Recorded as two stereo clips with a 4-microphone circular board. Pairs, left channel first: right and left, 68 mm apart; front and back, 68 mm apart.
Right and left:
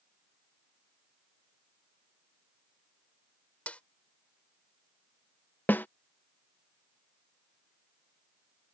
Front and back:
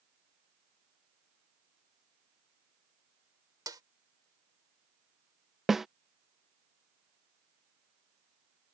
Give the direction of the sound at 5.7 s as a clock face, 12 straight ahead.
3 o'clock.